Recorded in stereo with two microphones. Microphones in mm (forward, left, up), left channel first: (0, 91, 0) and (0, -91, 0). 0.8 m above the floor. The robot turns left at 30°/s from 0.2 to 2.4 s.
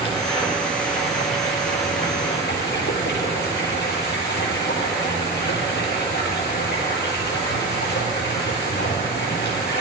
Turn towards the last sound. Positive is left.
turn(degrees=85)